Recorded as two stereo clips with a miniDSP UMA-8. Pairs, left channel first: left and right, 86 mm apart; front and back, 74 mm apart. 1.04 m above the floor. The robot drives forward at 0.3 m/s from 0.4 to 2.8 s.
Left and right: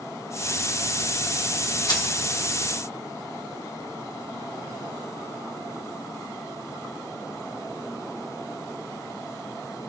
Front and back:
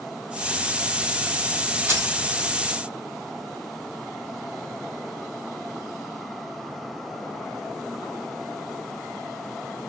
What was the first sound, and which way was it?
Keys jangling, 125° left.